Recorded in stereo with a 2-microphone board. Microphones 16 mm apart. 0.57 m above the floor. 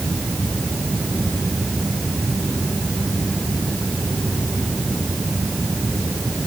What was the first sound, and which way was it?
Only background noise.